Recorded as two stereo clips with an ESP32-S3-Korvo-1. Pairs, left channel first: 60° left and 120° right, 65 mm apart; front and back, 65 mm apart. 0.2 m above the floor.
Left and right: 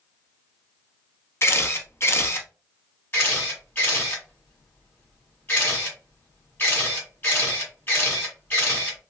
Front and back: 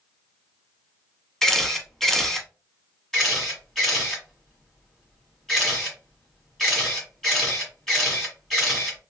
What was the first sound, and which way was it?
A camera shutter, 80° left.